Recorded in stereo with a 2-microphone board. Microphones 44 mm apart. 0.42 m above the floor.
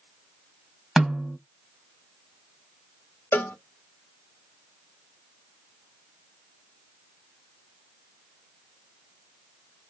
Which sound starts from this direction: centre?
A snare drum, at 1.0 s.